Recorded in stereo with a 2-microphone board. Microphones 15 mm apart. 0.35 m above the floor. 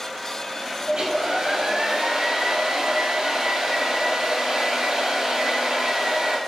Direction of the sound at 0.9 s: 60° right (ahead or behind).